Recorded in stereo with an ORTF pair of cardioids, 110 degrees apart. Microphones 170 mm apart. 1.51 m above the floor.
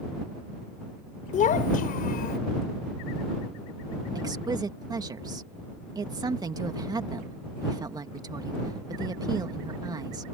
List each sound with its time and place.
1.3 s a child speaking: 50° left; by 2.4 s 65° left
4.2 s a woman speaking: 25° right